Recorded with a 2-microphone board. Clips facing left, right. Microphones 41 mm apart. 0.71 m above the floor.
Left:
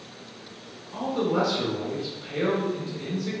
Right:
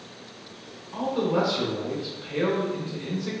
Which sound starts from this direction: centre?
A man speaking, at 0.9 s.